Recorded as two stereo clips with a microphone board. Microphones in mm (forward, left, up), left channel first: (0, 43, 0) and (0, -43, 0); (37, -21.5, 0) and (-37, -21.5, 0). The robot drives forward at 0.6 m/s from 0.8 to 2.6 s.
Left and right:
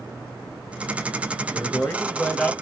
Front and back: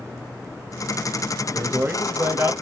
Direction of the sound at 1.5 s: 115° left.